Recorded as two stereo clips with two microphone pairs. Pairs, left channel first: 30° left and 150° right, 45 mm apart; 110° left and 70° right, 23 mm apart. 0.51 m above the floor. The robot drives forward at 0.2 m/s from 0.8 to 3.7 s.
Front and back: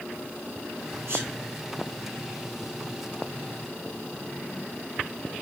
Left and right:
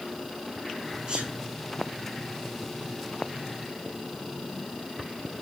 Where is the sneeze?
125° right, 3.5 m.